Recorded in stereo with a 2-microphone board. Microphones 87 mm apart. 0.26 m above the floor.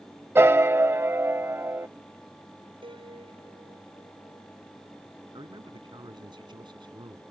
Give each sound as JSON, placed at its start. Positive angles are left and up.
{"t": 0.3, "sound": "a piano", "side_deg": -30}
{"t": 2.8, "sound": "a piano", "side_deg": -75}
{"t": 5.3, "sound": "a man speaking", "side_deg": -60}